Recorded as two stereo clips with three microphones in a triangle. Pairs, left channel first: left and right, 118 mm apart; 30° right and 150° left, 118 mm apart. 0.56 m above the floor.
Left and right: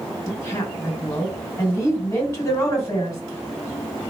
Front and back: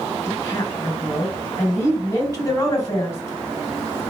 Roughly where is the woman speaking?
Ahead left.